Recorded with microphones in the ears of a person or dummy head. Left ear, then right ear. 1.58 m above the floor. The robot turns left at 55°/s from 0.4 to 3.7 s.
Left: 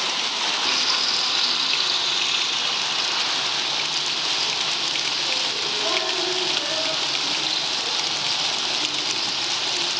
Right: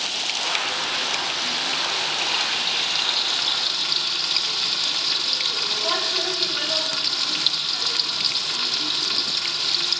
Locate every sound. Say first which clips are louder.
0.6 s frying: left 3 dB; 105° left, 3.5 m; by 10.0 s 65° right, 3.5 m